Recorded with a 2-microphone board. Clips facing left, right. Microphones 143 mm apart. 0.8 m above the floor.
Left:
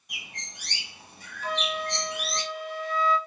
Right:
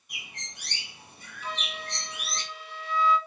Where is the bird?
80° left, 2 m.